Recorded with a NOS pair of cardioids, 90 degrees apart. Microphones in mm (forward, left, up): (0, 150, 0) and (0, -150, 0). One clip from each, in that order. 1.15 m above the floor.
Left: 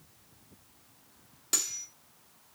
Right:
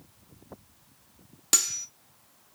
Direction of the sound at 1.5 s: 35° right.